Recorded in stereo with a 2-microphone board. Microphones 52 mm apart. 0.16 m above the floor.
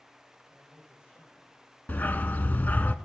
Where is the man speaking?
40° left (ahead or behind), 8 m.